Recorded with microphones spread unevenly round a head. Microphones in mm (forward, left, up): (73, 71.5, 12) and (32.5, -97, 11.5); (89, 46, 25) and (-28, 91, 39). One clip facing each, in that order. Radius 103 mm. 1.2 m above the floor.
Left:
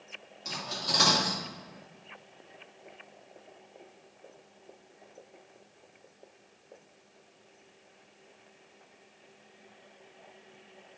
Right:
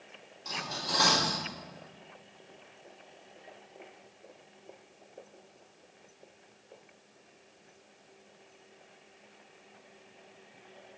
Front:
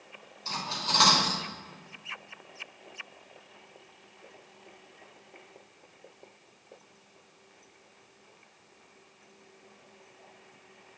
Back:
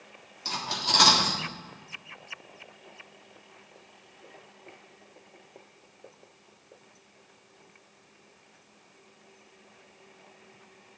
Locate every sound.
0.5 s cutlery clinking: 150° left, 1.9 m